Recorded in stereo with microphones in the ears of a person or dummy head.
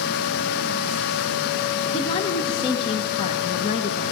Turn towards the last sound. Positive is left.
turn(degrees=30)  # may be behind; listen again after turning